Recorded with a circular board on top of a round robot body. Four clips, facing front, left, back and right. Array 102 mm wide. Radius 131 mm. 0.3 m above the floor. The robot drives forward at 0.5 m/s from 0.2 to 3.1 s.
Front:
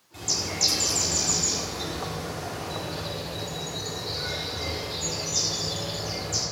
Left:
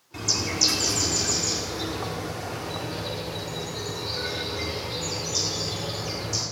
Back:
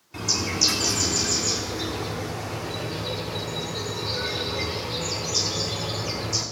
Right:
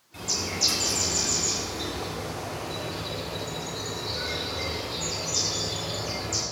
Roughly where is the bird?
Behind left.